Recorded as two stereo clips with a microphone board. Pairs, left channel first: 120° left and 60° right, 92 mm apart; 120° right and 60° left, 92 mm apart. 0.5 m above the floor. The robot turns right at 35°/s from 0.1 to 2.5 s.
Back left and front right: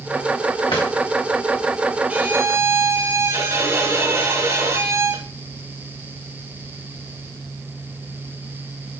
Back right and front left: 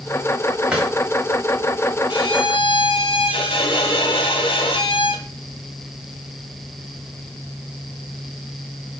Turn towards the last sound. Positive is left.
turn(degrees=-120)